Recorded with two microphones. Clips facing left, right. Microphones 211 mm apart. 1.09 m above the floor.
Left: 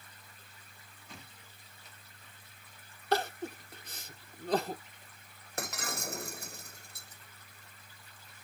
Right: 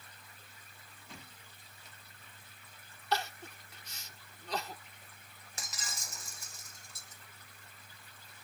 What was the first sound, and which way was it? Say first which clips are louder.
Crying: left 5 dB; 55° left (ahead or behind).